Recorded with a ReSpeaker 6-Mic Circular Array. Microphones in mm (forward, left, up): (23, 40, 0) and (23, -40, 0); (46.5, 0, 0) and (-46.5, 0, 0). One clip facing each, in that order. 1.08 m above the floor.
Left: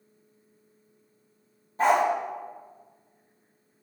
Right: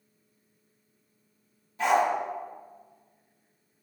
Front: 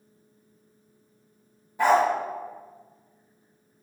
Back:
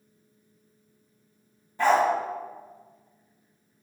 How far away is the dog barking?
About 0.7 m.